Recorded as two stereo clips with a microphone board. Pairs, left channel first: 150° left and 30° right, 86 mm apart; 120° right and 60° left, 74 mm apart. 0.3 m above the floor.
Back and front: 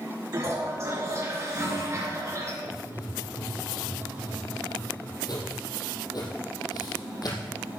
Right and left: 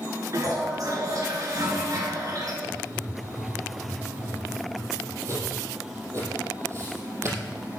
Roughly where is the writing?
Left.